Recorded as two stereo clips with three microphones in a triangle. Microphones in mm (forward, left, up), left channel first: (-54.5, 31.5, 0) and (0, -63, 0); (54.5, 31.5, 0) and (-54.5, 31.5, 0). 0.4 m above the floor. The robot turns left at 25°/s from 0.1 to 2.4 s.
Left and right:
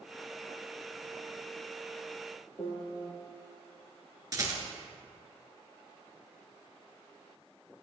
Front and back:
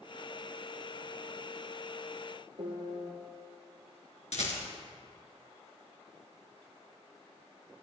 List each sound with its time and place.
2.6 s a piano: 170° left, 2.5 m
4.3 s a rattle: 5° right, 1.9 m